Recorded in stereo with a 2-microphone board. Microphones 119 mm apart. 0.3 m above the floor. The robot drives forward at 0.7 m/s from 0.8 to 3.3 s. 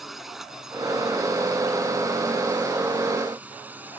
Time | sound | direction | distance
0.0 | a drone | centre (ahead or behind) | ?